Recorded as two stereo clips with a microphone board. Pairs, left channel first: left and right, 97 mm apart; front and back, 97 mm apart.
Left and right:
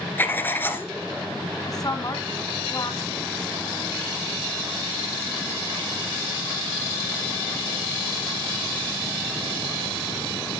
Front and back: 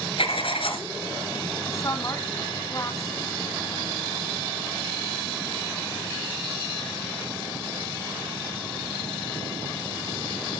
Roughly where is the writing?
Ahead.